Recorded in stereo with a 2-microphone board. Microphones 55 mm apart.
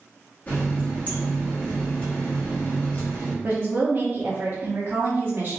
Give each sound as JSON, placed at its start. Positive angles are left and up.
{"t": 0.5, "sound": "a running tap", "side_deg": 35, "distance_m": 1.4}
{"t": 3.4, "sound": "a woman speaking", "side_deg": -40, "distance_m": 0.8}